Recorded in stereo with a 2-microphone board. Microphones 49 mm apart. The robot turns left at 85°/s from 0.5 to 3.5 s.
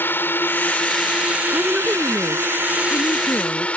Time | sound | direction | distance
0.0 | a drone | 45° left | ?
1.5 | a woman speaking | 155° right | ?